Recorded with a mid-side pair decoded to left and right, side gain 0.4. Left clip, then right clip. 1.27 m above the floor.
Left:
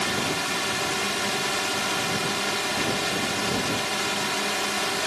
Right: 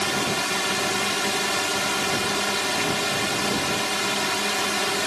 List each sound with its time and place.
0.0 s a drone: 25° right